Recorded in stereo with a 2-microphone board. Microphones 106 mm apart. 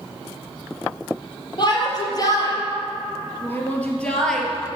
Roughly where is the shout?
Left.